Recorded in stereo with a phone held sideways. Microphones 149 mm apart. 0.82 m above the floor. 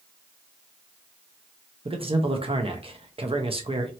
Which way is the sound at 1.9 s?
40° right (ahead or behind).